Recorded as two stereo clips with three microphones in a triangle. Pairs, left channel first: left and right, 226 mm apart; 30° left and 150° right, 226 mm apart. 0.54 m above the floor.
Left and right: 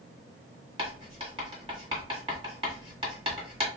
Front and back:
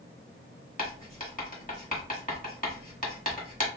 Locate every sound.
0.8 s writing: 25° right, 1.2 m